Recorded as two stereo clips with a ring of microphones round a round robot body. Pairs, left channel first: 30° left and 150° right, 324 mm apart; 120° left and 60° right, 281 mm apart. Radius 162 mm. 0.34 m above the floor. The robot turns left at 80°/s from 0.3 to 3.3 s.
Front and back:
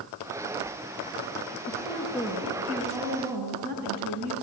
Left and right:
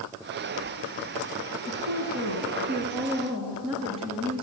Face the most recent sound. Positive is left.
turn(degrees=-150)